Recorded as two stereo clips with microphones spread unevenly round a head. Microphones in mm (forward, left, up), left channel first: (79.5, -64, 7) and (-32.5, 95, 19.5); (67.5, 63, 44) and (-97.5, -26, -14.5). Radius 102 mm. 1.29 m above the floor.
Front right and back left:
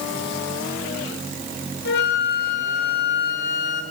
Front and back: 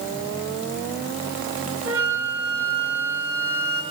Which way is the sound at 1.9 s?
55° right.